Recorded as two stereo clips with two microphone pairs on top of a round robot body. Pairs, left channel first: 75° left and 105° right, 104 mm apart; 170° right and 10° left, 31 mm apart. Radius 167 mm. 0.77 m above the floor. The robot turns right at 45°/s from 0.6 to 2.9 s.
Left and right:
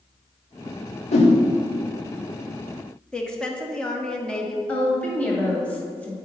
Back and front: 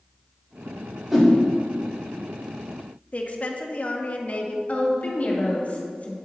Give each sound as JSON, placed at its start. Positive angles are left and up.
{"t": 1.1, "sound": "a whoosh", "azimuth_deg": 90, "distance_m": 1.0}
{"t": 3.1, "sound": "a woman speaking", "azimuth_deg": 155, "distance_m": 1.2}
{"t": 4.7, "sound": "a woman speaking", "azimuth_deg": 155, "distance_m": 2.0}